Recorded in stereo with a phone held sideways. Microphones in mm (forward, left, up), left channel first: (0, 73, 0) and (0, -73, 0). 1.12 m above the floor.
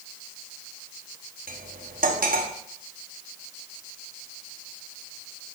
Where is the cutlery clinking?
75° right (ahead or behind), 1.1 m.